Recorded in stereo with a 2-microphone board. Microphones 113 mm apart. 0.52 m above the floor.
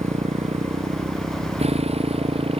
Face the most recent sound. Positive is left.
turn(degrees=-55)  # may be behind; listen again after turning